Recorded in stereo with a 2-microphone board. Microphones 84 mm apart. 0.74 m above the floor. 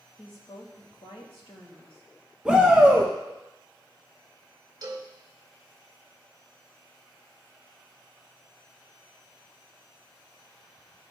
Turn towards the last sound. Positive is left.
turn(degrees=-45)  # may be behind; listen again after turning